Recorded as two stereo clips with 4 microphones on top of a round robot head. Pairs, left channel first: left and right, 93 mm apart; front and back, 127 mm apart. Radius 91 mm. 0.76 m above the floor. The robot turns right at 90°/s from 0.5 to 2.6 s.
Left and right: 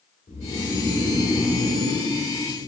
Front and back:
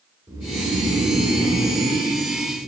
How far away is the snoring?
About 3 m.